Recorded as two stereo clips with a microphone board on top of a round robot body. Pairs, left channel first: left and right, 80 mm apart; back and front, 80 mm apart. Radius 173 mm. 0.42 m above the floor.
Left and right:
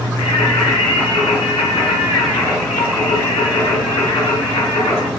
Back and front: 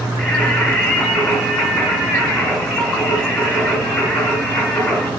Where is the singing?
105° left, 4.5 m.